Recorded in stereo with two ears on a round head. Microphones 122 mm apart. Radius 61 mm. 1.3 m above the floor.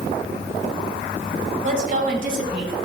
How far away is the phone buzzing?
I don't hear a phone buzzing.